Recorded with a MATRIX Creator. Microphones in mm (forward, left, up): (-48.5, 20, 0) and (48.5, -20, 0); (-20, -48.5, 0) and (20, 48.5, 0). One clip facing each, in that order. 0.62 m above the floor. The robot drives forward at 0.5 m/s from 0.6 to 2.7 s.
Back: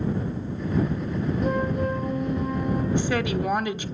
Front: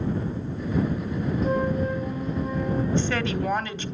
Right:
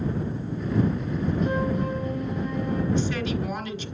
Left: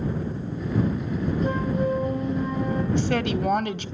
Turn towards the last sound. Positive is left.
turn(degrees=85)